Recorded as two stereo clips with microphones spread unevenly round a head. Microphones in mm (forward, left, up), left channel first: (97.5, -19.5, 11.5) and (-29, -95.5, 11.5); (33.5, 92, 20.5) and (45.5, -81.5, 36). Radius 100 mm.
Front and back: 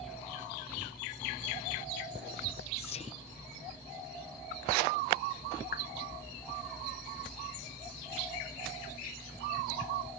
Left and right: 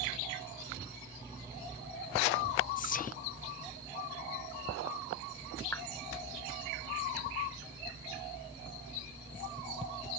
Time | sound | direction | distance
2.8 | whispering | 75° left | ?
5.7 | a clap | 15° left | ?